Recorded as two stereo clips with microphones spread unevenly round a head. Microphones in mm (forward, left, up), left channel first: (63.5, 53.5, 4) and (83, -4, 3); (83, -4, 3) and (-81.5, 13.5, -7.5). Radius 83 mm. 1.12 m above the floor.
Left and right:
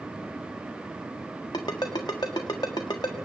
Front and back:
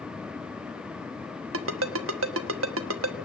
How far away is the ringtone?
About 1.2 m.